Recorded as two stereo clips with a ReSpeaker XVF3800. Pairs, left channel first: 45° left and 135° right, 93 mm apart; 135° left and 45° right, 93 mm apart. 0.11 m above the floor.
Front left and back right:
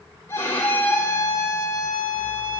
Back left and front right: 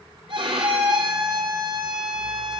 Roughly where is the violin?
Ahead.